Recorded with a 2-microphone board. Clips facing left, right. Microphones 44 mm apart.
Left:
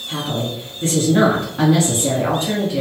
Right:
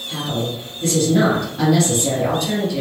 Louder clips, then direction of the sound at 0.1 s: Even; 30° left (ahead or behind).